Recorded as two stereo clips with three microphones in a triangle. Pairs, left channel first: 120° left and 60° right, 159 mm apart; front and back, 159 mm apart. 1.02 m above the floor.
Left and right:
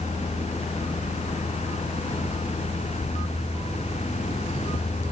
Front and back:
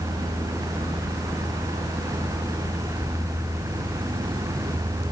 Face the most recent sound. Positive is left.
No sound to turn to.